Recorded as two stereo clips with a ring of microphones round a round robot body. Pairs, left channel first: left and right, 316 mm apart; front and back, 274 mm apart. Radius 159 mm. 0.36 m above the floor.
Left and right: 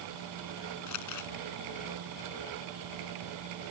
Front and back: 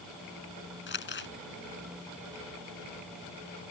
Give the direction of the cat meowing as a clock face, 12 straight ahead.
No cat meowing in this recording.